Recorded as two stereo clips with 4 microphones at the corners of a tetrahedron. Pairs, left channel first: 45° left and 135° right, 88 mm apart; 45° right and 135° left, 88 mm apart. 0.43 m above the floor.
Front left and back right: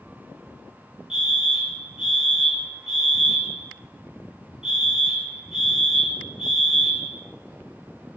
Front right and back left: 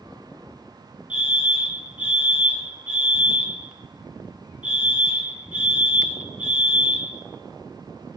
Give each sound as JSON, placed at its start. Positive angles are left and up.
{"t": 1.1, "sound": "a fire alarm", "azimuth_deg": 165, "distance_m": 1.7}